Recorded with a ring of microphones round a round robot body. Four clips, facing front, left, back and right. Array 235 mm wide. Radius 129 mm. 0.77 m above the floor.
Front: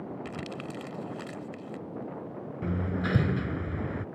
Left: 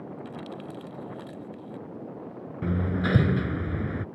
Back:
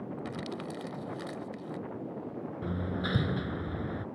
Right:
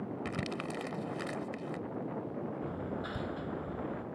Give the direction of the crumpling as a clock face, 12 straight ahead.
3 o'clock.